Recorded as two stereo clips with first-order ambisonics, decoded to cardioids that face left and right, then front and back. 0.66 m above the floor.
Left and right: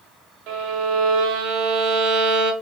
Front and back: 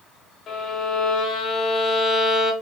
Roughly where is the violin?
Ahead right.